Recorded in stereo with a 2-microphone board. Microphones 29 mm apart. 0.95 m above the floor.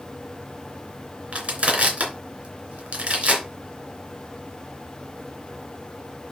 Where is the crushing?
50° right (ahead or behind), 3 m.